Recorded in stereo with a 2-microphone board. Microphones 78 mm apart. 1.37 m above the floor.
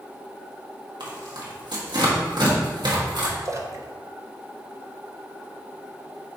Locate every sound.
1.0 s tearing paper: 75° right (ahead or behind), 1.5 m
3.5 s a splash: 40° right (ahead or behind), 0.7 m